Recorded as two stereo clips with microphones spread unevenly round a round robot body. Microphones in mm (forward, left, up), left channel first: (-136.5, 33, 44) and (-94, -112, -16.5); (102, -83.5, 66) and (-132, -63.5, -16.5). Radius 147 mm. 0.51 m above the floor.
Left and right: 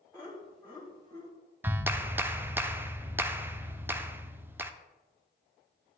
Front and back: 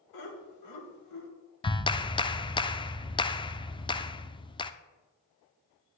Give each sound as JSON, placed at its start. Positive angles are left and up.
{"t": 0.1, "sound": "laughter", "azimuth_deg": 10, "distance_m": 2.5}
{"t": 1.6, "sound": "a clap", "azimuth_deg": -90, "distance_m": 0.6}